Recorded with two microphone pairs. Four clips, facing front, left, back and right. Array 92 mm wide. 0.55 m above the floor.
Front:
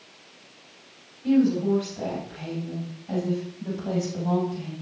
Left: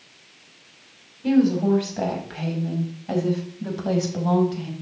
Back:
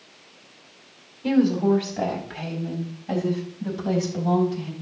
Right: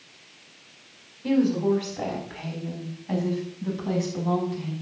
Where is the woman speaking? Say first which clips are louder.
Left 3 dB, back 1 dB; 145° left, 4.5 m; by 4.7 s 95° left, 5 m.